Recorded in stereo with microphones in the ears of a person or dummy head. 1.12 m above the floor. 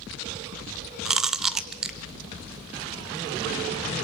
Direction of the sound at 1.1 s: 10° right (ahead or behind).